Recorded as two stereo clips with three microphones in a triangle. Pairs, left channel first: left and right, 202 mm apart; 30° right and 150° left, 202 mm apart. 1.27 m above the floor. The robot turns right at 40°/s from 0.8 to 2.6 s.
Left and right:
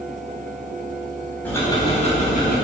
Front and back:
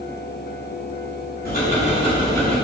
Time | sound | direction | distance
1.4 | ticking | 10° left | 4 m